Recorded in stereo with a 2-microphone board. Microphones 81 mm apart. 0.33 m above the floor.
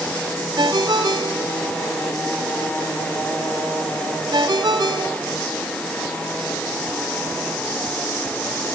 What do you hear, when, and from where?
0.6 s a ringtone: 55° right (ahead or behind), 2.5 m